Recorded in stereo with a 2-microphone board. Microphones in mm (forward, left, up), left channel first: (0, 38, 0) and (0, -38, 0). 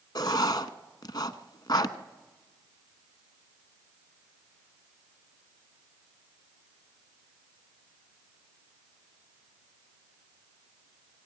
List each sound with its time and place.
0.1 s writing: 70° left (ahead or behind), 1.0 m